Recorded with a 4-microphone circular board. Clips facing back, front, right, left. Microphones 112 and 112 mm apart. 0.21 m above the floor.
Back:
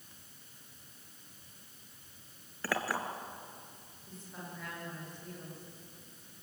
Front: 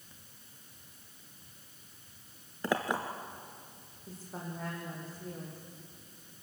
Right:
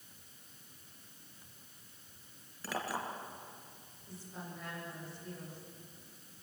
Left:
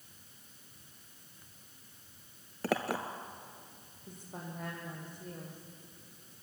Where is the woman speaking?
50° left, 9 m.